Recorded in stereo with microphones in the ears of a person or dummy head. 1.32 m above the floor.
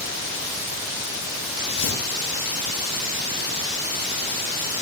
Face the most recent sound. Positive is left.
turn(degrees=65)  # may be behind; listen again after turning